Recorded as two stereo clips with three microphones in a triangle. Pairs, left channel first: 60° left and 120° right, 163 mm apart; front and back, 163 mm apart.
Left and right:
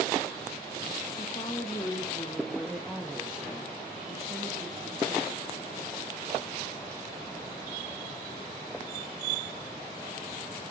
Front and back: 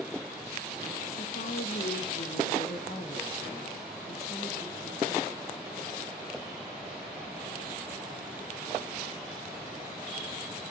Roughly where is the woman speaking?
Ahead.